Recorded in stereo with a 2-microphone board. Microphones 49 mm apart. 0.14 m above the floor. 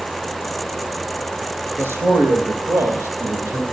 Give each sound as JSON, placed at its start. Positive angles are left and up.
{"t": 1.8, "sound": "a man speaking", "side_deg": -55, "distance_m": 1.9}